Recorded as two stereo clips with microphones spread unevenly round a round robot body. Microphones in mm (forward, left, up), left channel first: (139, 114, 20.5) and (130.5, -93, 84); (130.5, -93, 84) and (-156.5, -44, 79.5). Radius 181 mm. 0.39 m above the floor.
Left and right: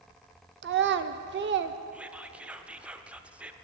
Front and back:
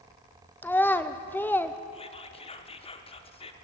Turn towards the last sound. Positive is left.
turn(degrees=30)